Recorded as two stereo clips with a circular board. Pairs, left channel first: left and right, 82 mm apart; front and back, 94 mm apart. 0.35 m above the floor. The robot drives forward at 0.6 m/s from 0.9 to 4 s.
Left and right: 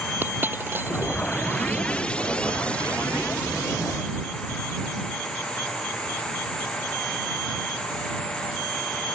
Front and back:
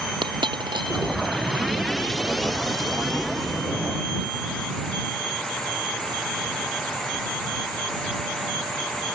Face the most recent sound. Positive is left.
turn(degrees=-160)